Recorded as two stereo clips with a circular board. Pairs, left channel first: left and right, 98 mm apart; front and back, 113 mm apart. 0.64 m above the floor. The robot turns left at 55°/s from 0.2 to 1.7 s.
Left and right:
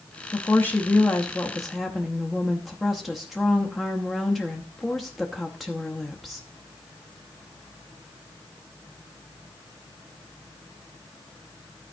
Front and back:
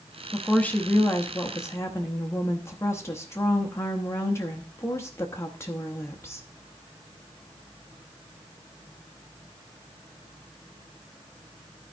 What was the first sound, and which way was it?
A woman speaking, 70° left.